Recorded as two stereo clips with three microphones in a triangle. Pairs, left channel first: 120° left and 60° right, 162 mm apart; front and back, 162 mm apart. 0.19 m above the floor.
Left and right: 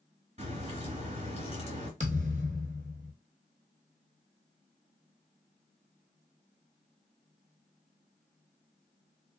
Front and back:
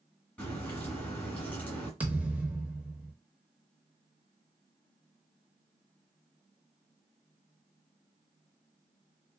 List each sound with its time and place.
0.4 s a crack: 75° right, 2 m
2.0 s a thud: 100° right, 1.2 m